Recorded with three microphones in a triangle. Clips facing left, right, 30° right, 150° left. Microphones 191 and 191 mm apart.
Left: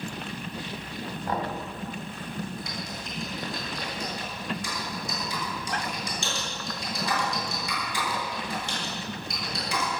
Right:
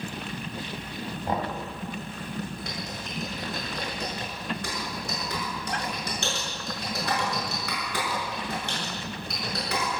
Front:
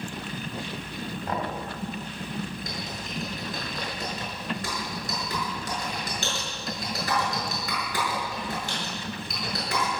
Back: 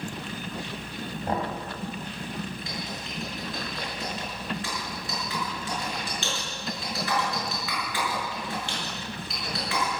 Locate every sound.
1.3 s knocking: 155° right, 2.5 m
2.6 s typing on a keyboard: 75° right, 7.5 m